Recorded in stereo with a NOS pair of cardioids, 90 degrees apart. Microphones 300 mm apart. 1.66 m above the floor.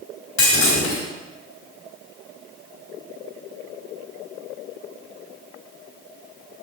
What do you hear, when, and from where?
0.4 s breaking glass: 45° left, 3 m